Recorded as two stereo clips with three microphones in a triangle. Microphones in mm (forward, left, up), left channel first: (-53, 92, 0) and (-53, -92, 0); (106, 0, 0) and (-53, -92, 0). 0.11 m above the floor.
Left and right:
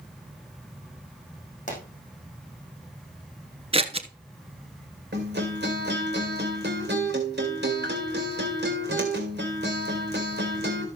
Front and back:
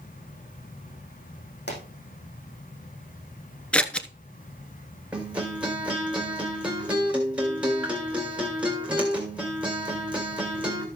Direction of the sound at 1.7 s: 45° left.